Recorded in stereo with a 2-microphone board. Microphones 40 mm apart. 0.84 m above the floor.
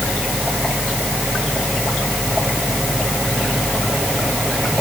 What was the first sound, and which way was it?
Only background noise.